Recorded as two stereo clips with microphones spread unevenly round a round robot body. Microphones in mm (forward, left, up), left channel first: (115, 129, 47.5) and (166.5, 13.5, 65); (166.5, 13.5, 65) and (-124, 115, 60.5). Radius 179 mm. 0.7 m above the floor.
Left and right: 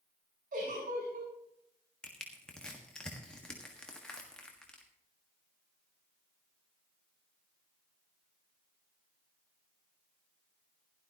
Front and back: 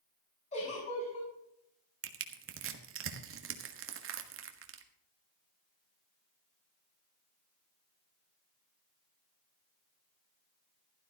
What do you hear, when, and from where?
0.5 s a giggle: 90° right, 6 m
2.0 s crushing: 170° right, 1.5 m